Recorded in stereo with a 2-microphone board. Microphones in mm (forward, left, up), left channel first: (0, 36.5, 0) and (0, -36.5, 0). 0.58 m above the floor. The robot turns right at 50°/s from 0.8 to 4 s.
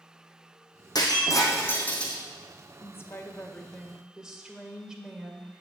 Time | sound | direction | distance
0.9 | breaking glass | 110° left | 2.5 m
2.8 | a woman speaking | 130° left | 1.9 m